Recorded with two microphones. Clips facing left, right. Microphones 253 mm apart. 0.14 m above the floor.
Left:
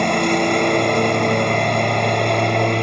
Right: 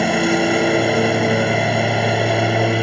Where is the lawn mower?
5° right (ahead or behind).